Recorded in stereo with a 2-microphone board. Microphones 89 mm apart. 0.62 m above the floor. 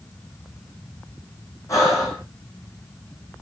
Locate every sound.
1.7 s breathing: 35° left (ahead or behind), 6 m